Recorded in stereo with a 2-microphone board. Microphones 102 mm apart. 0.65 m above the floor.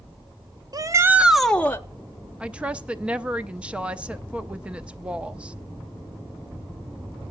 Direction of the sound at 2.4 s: 10° right (ahead or behind).